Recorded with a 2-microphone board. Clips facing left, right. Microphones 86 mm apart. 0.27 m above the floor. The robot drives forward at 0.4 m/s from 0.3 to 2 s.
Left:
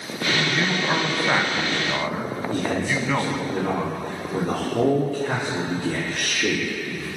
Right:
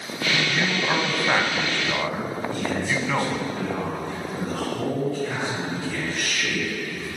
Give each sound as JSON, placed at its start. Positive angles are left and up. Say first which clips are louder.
{"t": 0.5, "sound": "a man speaking", "louder": "left 1 dB", "side_deg": 0, "distance_m": 1.8}
{"t": 2.5, "sound": "a man speaking", "louder": "left 3 dB", "side_deg": 70, "distance_m": 7.0}